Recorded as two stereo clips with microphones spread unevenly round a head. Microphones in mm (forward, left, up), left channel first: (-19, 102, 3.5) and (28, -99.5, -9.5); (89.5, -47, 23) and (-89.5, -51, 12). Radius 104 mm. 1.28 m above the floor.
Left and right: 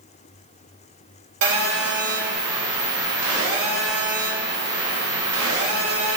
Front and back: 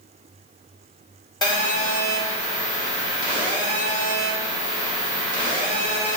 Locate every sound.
1.4 s a phone buzzing: 65° right, 1.3 m